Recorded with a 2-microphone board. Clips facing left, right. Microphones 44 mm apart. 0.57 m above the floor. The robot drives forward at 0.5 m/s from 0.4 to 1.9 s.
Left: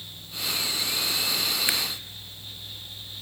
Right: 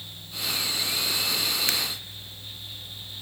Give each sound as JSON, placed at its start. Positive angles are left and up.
{"t": 1.7, "sound": "a camera shutter", "side_deg": 15, "distance_m": 1.8}